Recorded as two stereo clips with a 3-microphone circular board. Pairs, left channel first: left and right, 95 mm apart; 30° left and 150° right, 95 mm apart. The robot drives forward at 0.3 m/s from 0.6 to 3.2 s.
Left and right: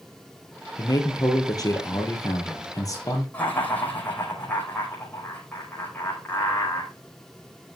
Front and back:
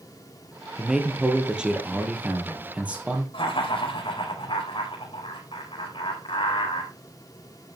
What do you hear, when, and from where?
0.8 s a man speaking: 130° left, 3 m; by 3.2 s 140° left, 3.5 m
3.3 s laughter: 15° left, 5 m